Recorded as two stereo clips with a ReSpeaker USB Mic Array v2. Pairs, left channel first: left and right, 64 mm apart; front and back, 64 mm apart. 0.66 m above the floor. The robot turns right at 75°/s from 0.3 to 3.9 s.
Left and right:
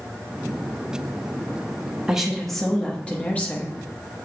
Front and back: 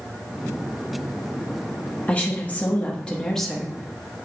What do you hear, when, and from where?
2.1 s a woman speaking: 25° right, 1.0 m; by 4.1 s 115° left, 1.0 m